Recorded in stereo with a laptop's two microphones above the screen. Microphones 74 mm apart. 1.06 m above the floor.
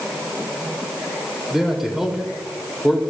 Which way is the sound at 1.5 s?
5° right (ahead or behind).